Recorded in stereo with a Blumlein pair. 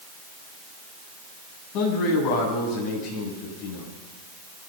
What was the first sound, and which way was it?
A man speaking, 40° left.